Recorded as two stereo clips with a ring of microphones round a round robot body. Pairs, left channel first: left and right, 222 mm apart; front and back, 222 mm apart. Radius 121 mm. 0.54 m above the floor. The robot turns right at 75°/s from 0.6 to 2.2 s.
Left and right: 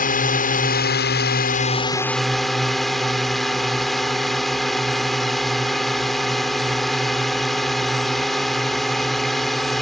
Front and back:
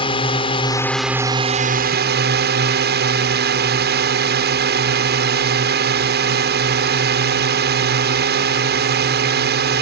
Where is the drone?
60° left; by 9.8 s straight behind.